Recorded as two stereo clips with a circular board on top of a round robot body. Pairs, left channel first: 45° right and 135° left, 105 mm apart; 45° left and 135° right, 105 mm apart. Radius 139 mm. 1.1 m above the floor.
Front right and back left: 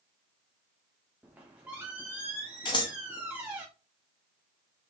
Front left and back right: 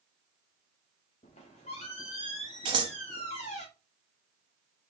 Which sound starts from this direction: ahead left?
A squeak, at 1.2 s.